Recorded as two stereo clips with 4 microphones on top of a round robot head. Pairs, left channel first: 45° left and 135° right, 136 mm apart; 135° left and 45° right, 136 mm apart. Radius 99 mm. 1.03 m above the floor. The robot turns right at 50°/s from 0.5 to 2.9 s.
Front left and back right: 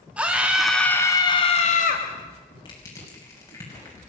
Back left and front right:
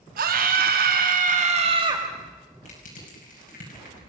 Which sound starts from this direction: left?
Crushing, at 2.6 s.